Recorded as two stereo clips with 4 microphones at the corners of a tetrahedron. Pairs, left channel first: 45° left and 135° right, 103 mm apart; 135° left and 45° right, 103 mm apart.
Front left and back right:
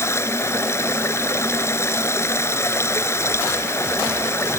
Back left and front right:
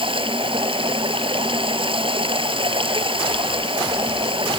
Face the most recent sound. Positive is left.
turn(degrees=-20)